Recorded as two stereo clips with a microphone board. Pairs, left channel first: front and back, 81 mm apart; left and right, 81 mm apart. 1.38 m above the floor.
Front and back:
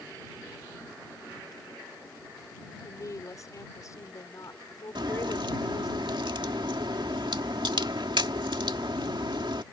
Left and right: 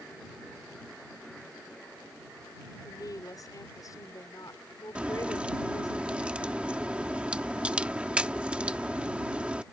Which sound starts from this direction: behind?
A crack, at 5.0 s.